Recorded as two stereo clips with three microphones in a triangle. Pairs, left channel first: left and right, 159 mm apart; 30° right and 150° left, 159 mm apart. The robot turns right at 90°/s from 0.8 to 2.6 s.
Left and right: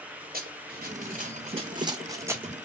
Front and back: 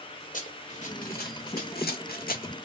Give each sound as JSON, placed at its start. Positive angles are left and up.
{"t": 0.3, "sound": "running footsteps", "azimuth_deg": -65, "distance_m": 1.1}